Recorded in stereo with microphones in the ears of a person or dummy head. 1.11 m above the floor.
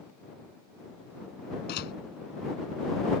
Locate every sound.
1.7 s a door slam: 60° left (ahead or behind)